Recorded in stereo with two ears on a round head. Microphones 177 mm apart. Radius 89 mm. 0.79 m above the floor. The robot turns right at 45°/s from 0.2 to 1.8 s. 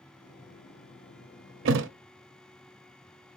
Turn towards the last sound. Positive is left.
turn(degrees=-70)  # may be behind; listen again after turning